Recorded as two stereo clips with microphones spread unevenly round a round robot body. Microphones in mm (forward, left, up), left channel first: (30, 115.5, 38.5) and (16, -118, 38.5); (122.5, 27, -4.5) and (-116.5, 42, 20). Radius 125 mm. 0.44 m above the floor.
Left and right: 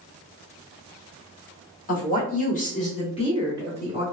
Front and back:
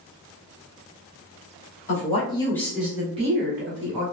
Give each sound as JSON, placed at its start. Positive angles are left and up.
{"t": 1.9, "sound": "a woman speaking", "azimuth_deg": 40, "distance_m": 1.4}